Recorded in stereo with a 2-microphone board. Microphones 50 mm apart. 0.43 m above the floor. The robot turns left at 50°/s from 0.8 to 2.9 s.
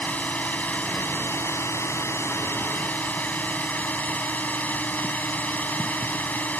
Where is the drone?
145° left; by 6.6 s 40° left.